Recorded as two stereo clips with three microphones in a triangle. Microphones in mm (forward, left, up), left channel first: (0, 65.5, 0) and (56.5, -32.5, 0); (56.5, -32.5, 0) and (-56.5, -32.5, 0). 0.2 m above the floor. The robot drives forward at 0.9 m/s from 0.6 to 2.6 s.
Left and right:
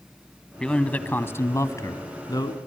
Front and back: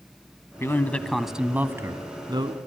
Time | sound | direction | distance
0.6 | a man speaking | 40° left | 1.3 m